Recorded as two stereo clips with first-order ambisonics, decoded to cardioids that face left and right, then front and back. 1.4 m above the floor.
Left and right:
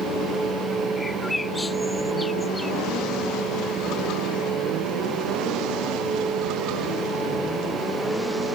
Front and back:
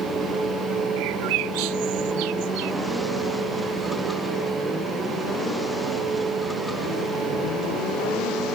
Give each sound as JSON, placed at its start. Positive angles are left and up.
{"t": 1.0, "sound": "a bird", "azimuth_deg": 170}